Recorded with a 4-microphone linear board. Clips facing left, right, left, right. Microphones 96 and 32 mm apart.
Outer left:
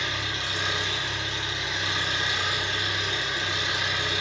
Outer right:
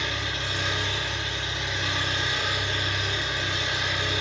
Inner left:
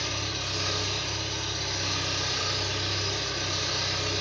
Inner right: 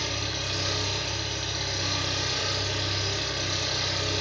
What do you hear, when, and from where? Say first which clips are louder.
0.0 s an engine running: even, inner right 1 dB; 50° right (ahead or behind), 1.8 m